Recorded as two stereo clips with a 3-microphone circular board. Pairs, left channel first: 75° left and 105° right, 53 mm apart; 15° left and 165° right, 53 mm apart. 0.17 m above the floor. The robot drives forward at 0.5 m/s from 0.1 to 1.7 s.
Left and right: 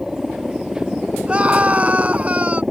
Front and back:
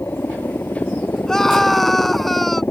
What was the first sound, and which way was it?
A helicopter, 15° right.